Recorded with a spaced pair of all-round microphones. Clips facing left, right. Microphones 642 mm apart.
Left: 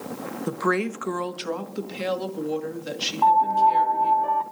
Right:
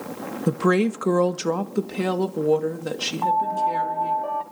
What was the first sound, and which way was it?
A woman speaking, 50° right (ahead or behind).